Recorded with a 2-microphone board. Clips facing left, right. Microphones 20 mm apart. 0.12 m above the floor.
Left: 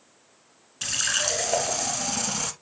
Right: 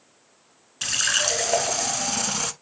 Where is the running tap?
15° right (ahead or behind), 0.8 m.